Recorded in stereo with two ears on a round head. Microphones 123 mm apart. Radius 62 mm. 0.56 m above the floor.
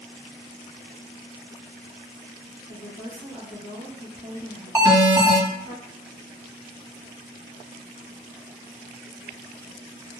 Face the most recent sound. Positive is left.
turn(degrees=-20)  # may be behind; listen again after turning